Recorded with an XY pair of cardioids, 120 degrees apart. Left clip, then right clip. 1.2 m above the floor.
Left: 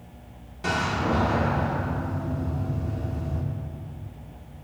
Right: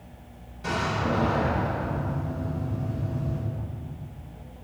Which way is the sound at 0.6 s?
50° left.